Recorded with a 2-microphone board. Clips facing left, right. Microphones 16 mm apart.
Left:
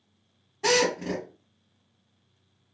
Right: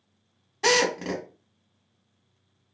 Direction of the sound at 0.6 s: 45° right (ahead or behind).